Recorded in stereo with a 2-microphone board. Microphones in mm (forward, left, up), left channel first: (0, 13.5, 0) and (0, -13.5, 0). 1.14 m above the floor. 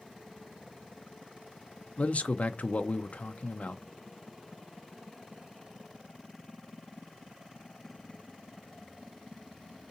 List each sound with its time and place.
2.0 s a man speaking: 60° left (ahead or behind), 0.6 m